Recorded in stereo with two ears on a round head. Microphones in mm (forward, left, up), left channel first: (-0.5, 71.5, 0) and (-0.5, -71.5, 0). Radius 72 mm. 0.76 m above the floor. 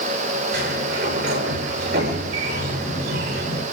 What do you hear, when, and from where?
0.5 s a sliding door: 65° right (ahead or behind), 9 m